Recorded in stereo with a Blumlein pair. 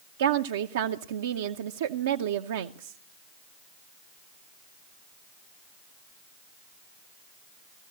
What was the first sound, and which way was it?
A woman speaking, 60° right.